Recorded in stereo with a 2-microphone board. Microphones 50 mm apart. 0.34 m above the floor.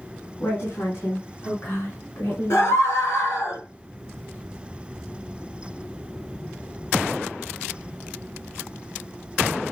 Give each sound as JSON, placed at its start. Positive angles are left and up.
{"t": 0.4, "sound": "a woman speaking", "side_deg": 50, "distance_m": 3.0}
{"t": 2.5, "sound": "a scream", "side_deg": 60, "distance_m": 6.5}